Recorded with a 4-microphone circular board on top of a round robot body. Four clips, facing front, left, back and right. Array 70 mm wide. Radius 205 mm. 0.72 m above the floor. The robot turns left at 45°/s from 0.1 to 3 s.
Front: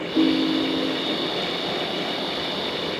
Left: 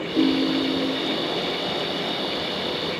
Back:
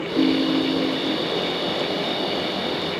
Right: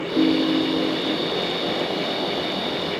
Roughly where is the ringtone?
Ahead right.